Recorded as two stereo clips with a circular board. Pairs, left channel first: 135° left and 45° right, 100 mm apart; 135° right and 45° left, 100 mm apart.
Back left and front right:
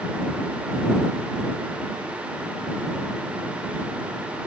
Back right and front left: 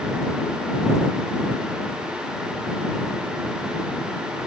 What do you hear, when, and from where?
Only background noise.